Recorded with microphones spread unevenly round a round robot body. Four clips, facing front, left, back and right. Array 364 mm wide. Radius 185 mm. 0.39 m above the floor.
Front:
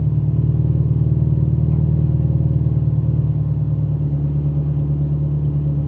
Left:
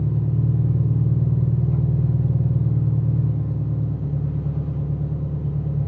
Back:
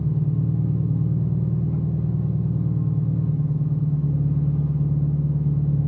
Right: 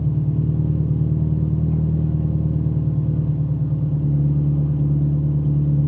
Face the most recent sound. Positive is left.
turn(degrees=-45)